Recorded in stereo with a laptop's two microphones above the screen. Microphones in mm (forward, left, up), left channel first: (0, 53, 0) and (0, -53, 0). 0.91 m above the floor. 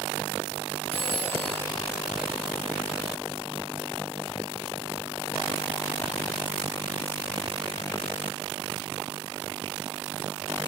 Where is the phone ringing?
60° left (ahead or behind), 7.5 m.